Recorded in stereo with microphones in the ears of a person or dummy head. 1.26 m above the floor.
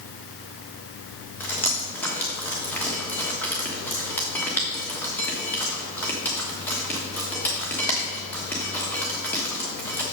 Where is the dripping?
5° left (ahead or behind), 1.3 m.